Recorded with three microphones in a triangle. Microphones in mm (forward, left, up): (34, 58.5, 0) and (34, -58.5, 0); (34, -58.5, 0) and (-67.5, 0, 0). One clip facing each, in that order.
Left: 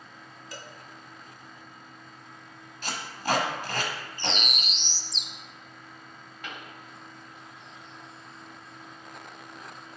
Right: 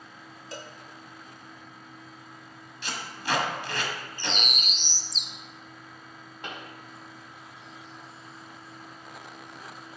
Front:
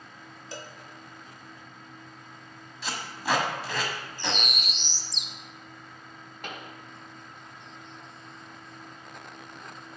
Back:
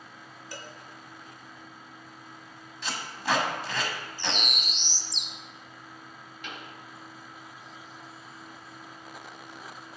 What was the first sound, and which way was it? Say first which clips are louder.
A cowbell: right 3 dB, front 2 dB; 75° right.